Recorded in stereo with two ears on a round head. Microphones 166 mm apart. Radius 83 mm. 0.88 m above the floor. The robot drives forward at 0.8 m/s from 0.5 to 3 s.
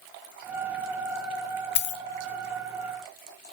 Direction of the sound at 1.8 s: 60° left (ahead or behind).